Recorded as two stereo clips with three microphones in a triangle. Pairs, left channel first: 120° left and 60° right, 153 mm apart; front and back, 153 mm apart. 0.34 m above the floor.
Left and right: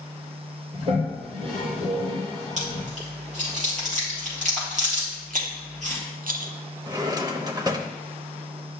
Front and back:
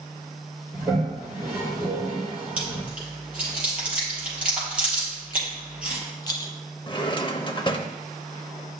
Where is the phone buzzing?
I don't hear a phone buzzing.